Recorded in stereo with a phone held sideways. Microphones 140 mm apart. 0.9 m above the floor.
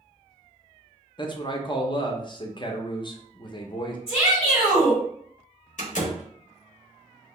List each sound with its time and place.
1.2 s a man speaking: 35° left (ahead or behind), 0.5 m
4.1 s a shout: 45° left (ahead or behind), 1.7 m
5.8 s a door slam: 60° left (ahead or behind), 1.0 m